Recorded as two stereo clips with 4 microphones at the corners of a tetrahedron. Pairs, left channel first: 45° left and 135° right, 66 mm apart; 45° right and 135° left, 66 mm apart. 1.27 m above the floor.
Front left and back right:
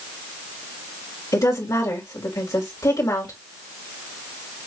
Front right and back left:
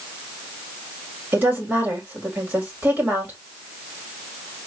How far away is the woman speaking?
About 2.5 m.